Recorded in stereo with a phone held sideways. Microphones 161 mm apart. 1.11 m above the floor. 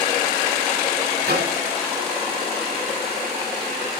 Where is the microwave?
70° right (ahead or behind), 2.0 m.